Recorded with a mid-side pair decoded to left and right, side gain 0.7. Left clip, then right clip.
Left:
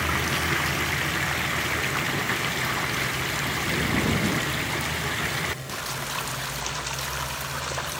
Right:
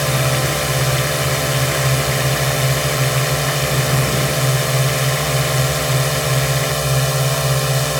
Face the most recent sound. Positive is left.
turn(degrees=-65)